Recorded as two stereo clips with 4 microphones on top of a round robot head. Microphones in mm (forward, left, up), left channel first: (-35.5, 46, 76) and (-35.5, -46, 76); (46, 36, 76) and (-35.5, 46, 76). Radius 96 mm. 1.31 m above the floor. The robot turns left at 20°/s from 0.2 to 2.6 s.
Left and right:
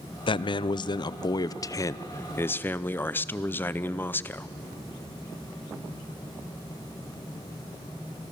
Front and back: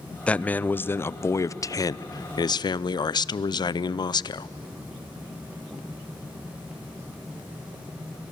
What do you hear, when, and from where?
0.3 s a man speaking: 70° left, 0.6 m; by 4.5 s 25° left, 0.6 m